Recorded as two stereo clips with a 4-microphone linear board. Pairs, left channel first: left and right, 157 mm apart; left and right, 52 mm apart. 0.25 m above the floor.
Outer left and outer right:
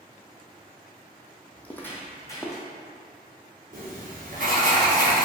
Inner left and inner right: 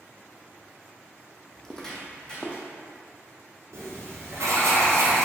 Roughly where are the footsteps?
Centre.